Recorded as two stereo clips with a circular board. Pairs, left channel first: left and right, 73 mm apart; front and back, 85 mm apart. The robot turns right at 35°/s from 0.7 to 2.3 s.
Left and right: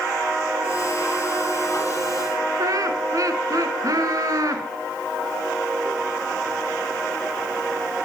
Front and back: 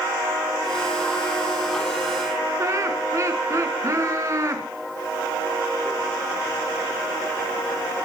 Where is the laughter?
130° right, 3 m.